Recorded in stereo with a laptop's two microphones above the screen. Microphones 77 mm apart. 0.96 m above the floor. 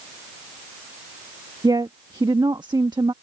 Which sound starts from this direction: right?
A woman speaking, at 1.6 s.